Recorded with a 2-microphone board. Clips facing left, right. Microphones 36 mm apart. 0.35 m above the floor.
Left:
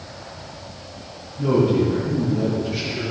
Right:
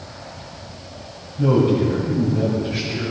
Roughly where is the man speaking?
Right.